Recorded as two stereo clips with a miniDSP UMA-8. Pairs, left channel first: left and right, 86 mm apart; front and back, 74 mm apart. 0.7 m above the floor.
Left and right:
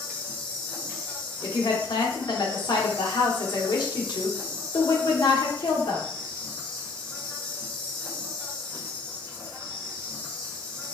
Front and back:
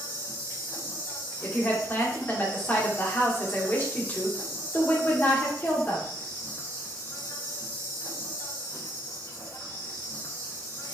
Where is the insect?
15° left, 2 m.